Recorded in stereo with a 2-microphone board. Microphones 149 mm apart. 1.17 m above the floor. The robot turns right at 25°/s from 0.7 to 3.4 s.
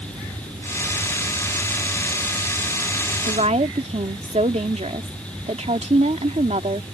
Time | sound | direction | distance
3.2 | a woman speaking | 50° right (ahead or behind) | ?